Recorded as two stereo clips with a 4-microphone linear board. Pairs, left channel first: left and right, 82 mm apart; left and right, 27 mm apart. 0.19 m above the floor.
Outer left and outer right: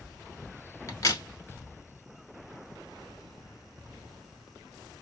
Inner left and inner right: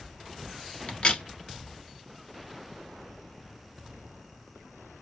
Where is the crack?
40° left (ahead or behind), 1.1 m.